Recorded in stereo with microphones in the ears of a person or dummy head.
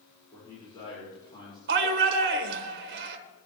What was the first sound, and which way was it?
A man speaking, 20° left (ahead or behind).